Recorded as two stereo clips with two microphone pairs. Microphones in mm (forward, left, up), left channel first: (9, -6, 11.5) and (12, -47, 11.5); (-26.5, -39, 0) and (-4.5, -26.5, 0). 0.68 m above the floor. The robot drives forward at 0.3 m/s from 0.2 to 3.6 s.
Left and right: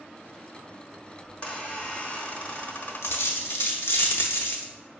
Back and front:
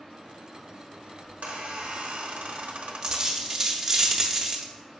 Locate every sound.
1.2 s a squeak: 30° left, 1.2 m; by 3.4 s 60° left, 0.7 m
3.0 s a dropped coin: 90° left, 0.6 m; by 4.7 s 105° left, 0.7 m